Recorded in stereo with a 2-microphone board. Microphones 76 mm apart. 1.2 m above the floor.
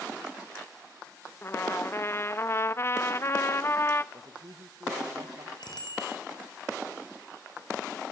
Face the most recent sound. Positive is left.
turn(degrees=70)  # may be behind; listen again after turning